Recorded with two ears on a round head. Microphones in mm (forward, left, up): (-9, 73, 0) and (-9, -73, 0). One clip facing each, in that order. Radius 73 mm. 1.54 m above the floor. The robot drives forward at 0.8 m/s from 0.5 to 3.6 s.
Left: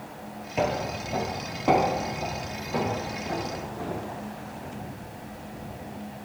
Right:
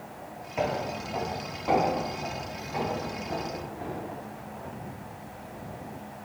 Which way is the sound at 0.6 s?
35° left (ahead or behind).